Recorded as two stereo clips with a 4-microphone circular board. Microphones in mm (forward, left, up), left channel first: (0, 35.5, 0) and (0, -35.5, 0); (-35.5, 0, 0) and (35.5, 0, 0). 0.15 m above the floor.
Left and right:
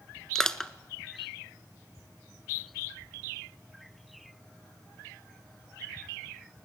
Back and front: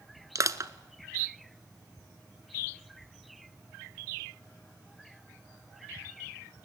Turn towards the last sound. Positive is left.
turn(degrees=10)